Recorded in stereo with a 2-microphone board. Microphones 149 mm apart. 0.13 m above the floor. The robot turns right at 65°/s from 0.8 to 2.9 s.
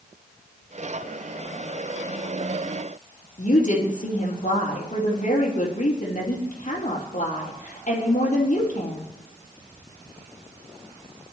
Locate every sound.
3.4 s a woman speaking: 55° left (ahead or behind), 4.5 m